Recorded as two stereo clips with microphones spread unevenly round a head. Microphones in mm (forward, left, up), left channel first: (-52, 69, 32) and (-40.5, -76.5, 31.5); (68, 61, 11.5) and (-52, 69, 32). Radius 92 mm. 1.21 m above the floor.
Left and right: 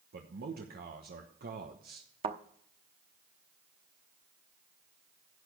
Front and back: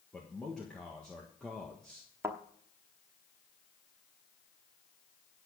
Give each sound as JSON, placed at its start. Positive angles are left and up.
{"t": 0.1, "sound": "a man speaking", "azimuth_deg": -90, "distance_m": 1.2}
{"t": 2.2, "sound": "a thud", "azimuth_deg": -120, "distance_m": 0.9}